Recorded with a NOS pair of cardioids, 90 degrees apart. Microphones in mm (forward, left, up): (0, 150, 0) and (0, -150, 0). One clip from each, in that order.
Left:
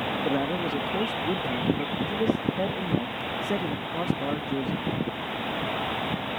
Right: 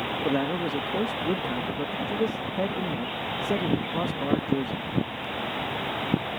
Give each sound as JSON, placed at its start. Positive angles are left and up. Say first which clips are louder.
{"t": 0.2, "sound": "a man speaking", "louder": "right 2 dB", "azimuth_deg": -10}